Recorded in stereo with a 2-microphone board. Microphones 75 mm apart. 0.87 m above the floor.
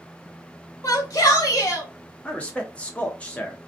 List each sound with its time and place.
0.8 s a shout: 45° left (ahead or behind), 1.1 m
2.2 s a man speaking: 15° left (ahead or behind), 0.8 m